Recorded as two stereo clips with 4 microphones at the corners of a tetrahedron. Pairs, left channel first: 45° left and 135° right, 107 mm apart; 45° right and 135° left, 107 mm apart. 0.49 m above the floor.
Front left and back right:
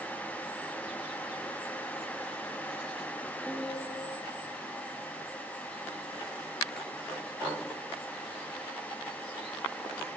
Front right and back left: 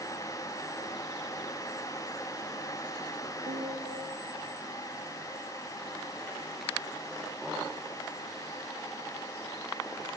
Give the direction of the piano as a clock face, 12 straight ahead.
7 o'clock.